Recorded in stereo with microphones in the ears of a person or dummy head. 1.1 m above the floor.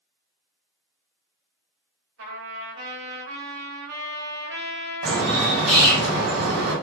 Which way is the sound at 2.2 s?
70° right (ahead or behind).